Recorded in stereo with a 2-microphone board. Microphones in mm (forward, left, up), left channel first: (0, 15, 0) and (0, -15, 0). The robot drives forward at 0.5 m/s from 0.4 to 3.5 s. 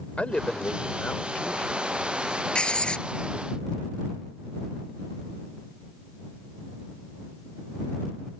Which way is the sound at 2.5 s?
35° left (ahead or behind).